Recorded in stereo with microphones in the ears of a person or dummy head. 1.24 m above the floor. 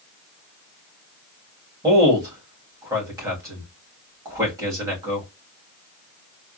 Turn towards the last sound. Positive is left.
turn(degrees=-20)  # may be behind; listen again after turning